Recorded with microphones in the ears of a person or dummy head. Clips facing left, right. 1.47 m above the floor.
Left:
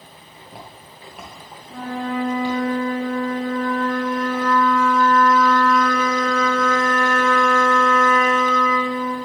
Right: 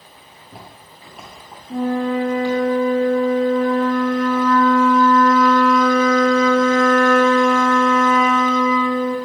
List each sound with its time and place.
0.3 s footsteps: centre (ahead or behind), 1.5 m; by 2.6 s 15° left (ahead or behind), 3 m
1.7 s a flute: 20° right (ahead or behind), 1.1 m